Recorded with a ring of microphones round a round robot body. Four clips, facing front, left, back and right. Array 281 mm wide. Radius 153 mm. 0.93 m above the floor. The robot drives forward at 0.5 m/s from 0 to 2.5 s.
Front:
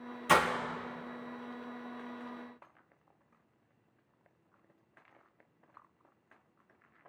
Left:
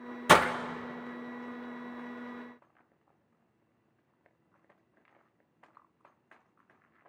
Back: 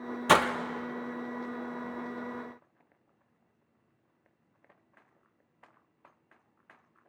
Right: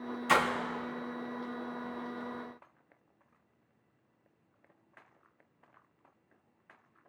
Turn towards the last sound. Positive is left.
turn(degrees=165)